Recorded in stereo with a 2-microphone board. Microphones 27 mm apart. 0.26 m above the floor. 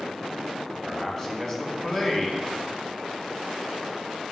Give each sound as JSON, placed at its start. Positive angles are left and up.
{"t": 0.8, "sound": "a man speaking", "side_deg": 15, "distance_m": 2.5}